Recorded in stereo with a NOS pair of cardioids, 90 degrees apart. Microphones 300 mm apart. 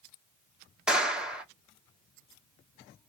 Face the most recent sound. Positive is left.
turn(degrees=-5)